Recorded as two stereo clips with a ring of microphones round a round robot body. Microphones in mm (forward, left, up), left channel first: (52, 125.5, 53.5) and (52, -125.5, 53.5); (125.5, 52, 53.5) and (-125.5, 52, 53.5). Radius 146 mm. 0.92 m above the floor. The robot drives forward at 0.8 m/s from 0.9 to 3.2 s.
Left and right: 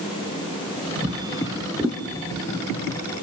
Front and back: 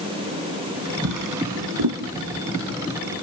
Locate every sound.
1.0 s a drawer: 165° right, 1.8 m; by 2.0 s 170° right, 2.5 m